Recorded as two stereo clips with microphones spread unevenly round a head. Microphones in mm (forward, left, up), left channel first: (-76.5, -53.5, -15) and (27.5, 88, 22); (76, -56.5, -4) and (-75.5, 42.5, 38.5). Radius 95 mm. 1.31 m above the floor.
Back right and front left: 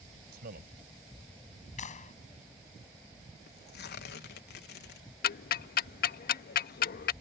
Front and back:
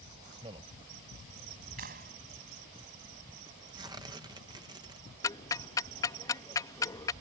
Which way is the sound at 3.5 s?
145° right.